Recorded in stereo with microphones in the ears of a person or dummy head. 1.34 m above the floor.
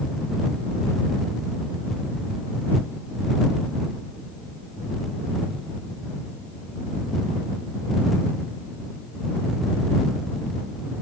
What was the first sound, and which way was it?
Only background noise.